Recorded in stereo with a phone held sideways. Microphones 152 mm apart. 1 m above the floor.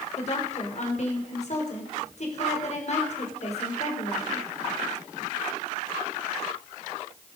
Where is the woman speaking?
50° left (ahead or behind), 3.5 m.